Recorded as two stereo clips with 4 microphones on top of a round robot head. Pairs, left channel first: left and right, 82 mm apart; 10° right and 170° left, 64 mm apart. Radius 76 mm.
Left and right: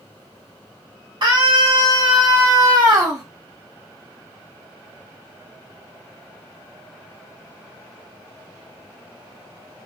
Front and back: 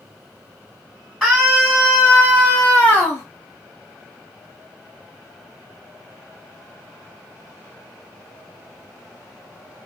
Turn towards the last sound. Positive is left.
turn(degrees=-60)